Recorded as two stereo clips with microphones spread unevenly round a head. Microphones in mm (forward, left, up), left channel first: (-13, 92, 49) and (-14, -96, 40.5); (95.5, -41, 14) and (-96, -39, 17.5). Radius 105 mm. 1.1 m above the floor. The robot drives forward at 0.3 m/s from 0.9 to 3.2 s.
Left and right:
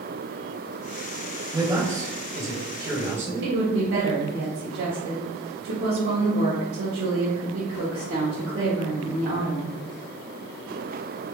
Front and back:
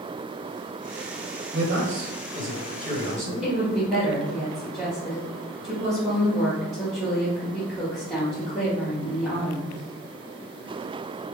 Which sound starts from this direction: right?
A woman speaking, at 3.4 s.